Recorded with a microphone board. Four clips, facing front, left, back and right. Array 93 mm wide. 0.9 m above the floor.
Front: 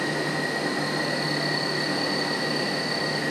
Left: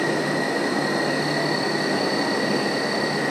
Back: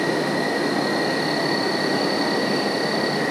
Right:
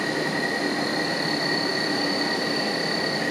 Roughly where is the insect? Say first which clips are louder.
Left 3 dB, back 6 dB; behind.